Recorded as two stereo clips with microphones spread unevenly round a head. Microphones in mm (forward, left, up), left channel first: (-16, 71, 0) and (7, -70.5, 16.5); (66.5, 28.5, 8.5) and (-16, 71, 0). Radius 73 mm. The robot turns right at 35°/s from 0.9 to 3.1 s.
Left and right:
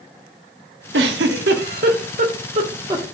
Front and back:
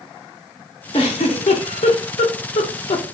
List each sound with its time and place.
0.9 s a giggle: 85° right, 0.8 m; by 3.0 s 10° right, 0.8 m